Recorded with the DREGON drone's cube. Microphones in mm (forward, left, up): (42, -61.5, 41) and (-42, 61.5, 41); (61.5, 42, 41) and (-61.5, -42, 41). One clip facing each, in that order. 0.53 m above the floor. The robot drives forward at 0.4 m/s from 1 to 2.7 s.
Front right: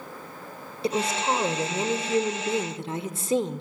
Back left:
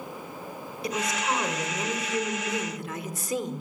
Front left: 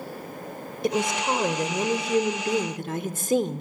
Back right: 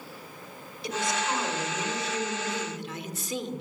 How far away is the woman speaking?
About 2 m.